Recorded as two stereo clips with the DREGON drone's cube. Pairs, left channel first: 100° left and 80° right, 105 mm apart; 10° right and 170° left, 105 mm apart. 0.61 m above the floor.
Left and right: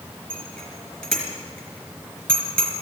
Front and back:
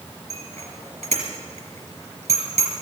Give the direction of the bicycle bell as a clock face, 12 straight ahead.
6 o'clock.